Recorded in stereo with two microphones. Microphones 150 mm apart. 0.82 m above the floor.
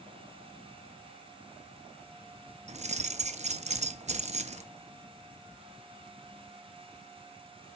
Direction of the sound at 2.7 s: 50° right (ahead or behind).